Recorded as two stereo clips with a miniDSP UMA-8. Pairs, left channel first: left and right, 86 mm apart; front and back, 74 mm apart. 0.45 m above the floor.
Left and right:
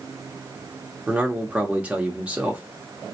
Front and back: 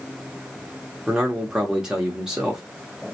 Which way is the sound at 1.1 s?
120° right.